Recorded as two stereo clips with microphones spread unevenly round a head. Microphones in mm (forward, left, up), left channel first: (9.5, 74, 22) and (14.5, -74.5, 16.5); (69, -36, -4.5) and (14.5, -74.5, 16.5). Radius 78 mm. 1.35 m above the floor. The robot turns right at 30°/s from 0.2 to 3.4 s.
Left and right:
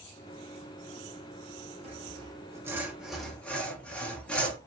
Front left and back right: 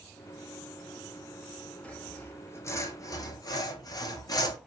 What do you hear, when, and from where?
1.8 s sawing: 40° right, 1.0 m; by 4.6 s 10° left, 1.0 m